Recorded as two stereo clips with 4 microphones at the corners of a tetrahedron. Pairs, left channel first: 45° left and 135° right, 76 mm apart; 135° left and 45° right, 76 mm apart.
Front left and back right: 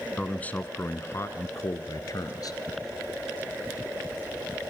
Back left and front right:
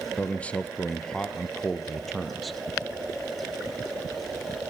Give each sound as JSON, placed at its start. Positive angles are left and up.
{"t": 0.2, "sound": "a man speaking", "azimuth_deg": 100, "distance_m": 1.1}